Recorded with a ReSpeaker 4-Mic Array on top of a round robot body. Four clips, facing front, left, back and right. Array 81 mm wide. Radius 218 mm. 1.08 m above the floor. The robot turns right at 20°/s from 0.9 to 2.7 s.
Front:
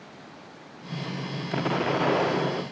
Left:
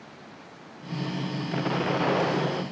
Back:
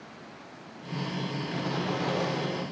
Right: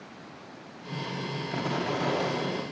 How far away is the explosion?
About 0.7 m.